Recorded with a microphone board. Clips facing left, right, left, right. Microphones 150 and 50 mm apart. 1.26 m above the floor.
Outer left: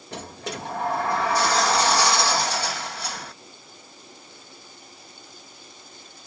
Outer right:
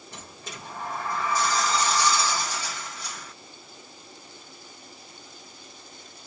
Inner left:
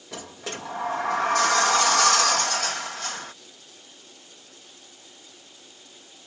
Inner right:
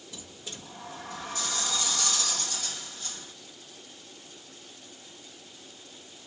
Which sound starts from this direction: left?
A sliding door, at 0.1 s.